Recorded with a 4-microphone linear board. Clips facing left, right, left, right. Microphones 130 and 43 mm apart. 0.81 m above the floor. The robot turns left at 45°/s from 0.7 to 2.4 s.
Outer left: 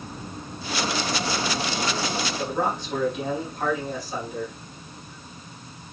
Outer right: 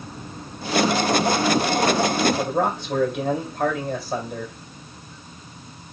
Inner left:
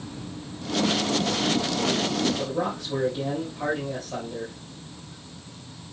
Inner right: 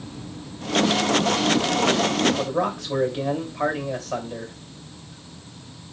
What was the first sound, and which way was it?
A man speaking, 60° right (ahead or behind).